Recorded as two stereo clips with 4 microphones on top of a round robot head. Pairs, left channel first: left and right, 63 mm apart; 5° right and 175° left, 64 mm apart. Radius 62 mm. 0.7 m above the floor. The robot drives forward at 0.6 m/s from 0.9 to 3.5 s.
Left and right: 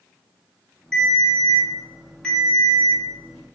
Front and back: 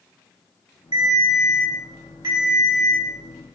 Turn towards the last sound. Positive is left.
turn(degrees=175)